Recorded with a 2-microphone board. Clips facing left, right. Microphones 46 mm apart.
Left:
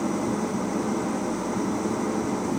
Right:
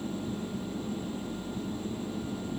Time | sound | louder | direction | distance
0.0 | an engine running | left 10 dB | 85° left | ?